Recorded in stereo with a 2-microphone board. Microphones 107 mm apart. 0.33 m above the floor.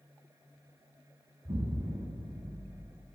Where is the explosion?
50° right (ahead or behind), 1.7 m.